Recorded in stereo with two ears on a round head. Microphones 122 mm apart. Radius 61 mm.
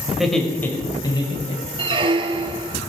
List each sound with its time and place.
0.1 s laughter: 5° right (ahead or behind), 2 m; by 2.0 s 50° left (ahead or behind), 3 m
1.8 s a squeak: 35° right (ahead or behind), 0.7 m